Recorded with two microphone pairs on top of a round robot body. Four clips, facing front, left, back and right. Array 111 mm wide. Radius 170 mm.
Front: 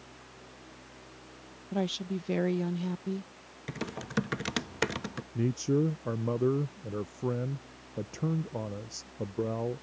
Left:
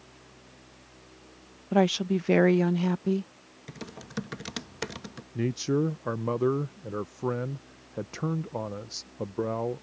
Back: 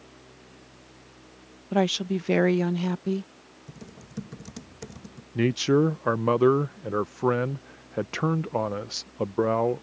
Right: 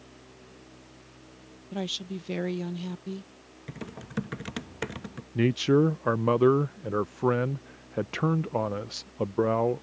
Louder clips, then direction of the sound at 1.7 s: Left 11 dB, back 8 dB; 135° left.